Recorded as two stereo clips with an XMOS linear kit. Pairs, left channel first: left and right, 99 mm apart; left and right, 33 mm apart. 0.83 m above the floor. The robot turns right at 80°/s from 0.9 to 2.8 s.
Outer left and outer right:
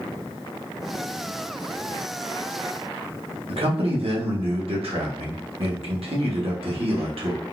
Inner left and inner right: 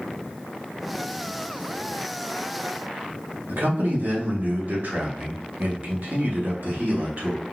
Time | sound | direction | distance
3.5 | a man speaking | 70° right (ahead or behind) | 1.2 m